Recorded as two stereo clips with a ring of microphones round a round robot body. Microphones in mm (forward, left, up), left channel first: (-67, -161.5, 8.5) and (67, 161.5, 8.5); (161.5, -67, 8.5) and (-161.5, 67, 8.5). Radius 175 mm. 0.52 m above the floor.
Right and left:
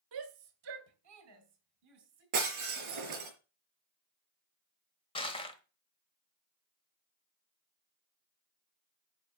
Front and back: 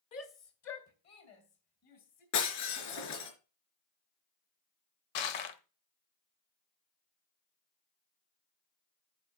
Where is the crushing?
35° right, 1.1 m.